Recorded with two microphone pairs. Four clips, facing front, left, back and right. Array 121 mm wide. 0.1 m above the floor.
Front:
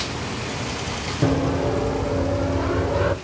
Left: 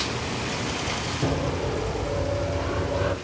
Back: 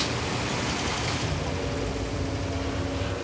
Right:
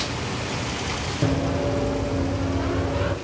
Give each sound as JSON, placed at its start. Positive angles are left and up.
{"t": 1.2, "sound": "running footsteps", "azimuth_deg": -20, "distance_m": 7.0}